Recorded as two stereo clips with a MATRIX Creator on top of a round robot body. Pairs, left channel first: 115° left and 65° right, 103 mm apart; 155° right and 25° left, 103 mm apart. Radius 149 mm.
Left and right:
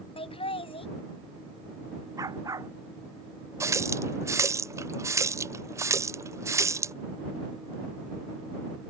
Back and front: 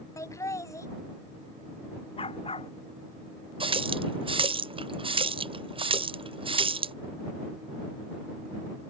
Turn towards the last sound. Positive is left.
turn(degrees=-5)